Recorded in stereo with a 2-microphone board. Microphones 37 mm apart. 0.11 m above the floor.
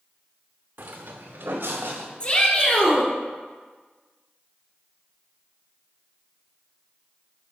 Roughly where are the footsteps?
Right.